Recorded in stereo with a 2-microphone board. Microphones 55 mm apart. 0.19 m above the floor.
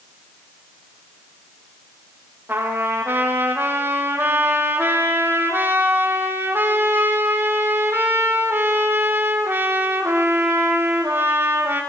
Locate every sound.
2.5 s a trumpet: 40° right (ahead or behind), 5.5 m